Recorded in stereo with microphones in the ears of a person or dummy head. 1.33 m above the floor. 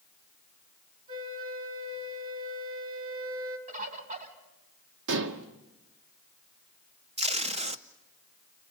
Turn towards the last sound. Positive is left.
turn(degrees=-30)  # may be behind; listen again after turning